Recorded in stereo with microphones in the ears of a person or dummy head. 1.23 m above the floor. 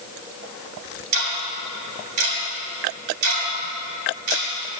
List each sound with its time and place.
1.1 s ticking: 85° right, 2.5 m